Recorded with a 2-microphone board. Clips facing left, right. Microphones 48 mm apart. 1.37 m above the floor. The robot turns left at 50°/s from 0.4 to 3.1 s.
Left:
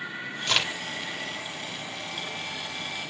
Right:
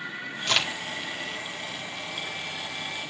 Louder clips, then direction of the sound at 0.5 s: Right 1 dB; centre (ahead or behind).